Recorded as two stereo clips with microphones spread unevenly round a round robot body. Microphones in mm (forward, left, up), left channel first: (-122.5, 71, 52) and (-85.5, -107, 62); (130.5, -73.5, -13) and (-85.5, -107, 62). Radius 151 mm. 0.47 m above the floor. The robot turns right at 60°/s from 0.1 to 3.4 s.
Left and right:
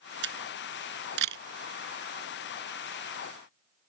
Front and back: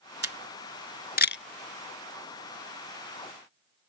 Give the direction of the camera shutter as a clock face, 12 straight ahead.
3 o'clock.